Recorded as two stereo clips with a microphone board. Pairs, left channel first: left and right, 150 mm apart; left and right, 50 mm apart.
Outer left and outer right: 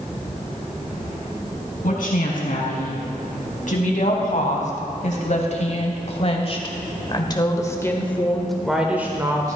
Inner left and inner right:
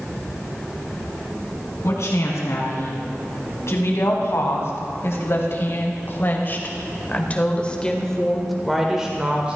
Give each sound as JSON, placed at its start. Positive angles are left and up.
{"t": 1.8, "sound": "a woman speaking", "side_deg": 70, "distance_m": 3.5}